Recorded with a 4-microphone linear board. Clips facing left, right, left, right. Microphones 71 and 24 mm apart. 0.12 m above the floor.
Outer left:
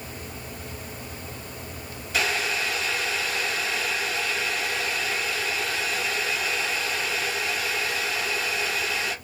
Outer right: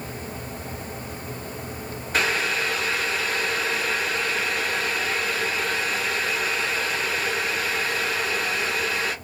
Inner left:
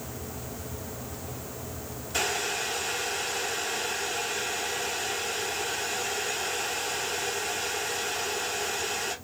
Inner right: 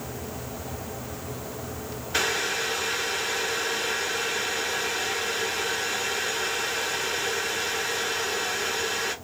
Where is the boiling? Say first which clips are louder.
Outer right 2 dB, inner right 3 dB; 45° right (ahead or behind), 1.7 m.